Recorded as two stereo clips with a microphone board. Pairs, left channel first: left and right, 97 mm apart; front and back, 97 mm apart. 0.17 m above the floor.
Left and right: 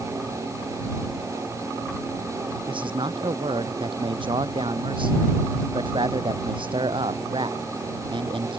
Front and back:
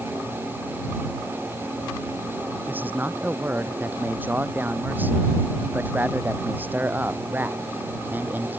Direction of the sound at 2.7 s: 110° right.